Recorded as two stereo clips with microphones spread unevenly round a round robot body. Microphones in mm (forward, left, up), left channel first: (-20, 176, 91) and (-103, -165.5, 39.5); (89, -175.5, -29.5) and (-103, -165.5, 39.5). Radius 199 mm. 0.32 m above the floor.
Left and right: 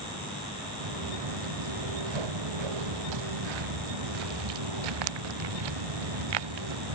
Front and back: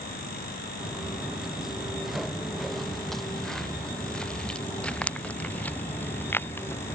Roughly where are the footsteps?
Right.